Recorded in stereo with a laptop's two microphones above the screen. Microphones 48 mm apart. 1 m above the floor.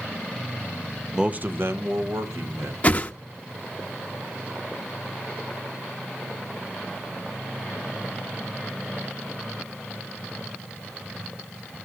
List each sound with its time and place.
1.1 s a man speaking: 10° right (ahead or behind), 0.5 m; by 2.7 s 75° right (ahead or behind), 1.7 m
2.8 s a whoosh: 30° left (ahead or behind), 0.7 m